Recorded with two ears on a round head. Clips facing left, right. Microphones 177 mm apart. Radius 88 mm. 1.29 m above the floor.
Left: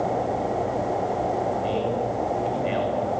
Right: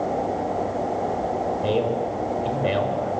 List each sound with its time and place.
1.6 s a man speaking: 55° right (ahead or behind), 5.5 m